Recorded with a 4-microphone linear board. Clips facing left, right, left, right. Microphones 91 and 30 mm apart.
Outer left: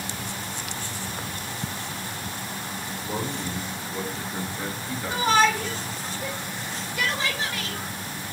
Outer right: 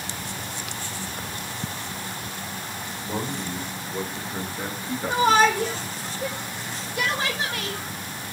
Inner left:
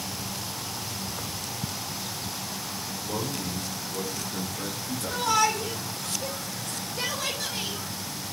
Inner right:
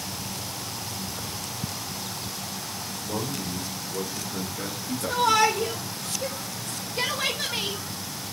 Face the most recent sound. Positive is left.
turn(degrees=-30)  # may be behind; listen again after turning